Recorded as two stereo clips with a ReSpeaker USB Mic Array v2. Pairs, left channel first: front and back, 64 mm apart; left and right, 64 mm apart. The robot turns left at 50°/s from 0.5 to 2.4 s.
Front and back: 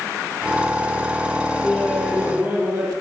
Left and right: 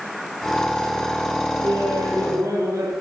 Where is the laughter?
85° right, 6 m; by 2.9 s 120° right, 6 m.